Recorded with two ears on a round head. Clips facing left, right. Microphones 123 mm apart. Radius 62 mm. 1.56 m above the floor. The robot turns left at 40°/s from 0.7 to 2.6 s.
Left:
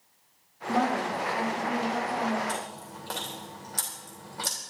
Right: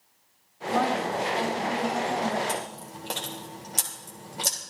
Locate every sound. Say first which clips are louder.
0.7 s a woman speaking: right 1 dB; 40° left, 3 m; by 2.4 s 30° right, 3 m
2.5 s chewing: right 2 dB; 30° right (ahead or behind), 3 m; by 4.6 s 25° right (ahead or behind), 3 m